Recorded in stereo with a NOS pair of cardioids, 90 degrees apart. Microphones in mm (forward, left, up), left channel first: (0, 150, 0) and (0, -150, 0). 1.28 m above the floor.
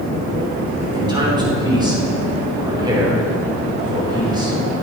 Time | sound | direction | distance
0.9 | a man speaking | 15° right | 4.5 m